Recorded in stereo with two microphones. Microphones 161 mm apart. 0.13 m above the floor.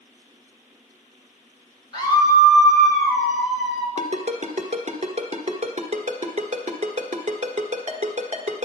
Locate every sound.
1.9 s a scream: 30° left (ahead or behind), 2.5 m; by 3.9 s centre (ahead or behind), 2.5 m
4.0 s a ringtone: 50° right (ahead or behind), 1.3 m